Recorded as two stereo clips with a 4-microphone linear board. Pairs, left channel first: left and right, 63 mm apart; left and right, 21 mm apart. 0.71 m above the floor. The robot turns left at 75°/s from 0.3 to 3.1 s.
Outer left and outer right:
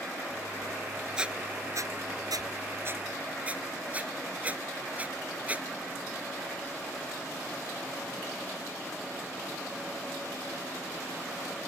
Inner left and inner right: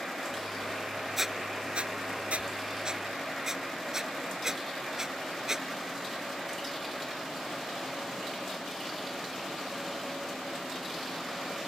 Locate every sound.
1.2 s a squeak: 10° right (ahead or behind); by 5.7 s 25° right (ahead or behind)